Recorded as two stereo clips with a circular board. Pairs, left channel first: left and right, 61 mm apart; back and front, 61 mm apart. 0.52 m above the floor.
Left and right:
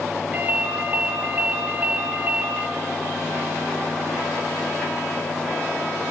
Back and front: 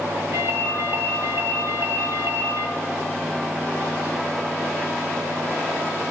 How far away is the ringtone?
About 3 m.